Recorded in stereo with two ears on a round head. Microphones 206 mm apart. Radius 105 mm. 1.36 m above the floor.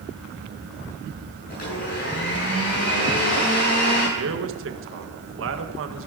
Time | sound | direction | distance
1.5 | a blender | 40° left (ahead or behind) | 8 m
4.2 | a man speaking | 65° right (ahead or behind) | 1.6 m